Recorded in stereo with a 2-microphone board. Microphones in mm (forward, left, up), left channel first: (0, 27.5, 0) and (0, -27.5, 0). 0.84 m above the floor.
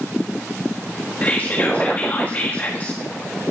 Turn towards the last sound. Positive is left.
turn(degrees=30)  # may be behind; listen again after turning